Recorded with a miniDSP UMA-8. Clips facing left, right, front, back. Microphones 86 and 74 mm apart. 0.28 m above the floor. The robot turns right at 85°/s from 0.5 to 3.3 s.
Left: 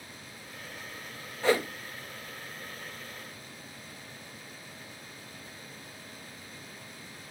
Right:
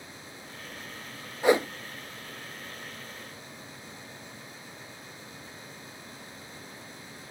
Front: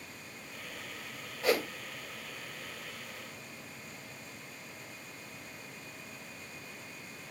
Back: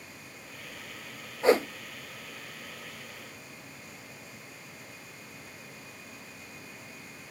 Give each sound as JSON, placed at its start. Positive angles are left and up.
{"t": 1.4, "sound": "a whoosh", "azimuth_deg": -155, "distance_m": 0.5}